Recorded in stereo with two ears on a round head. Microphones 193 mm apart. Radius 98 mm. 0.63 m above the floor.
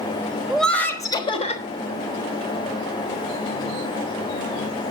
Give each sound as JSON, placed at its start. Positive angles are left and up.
{"t": 0.5, "sound": "laughter", "side_deg": 0, "distance_m": 1.3}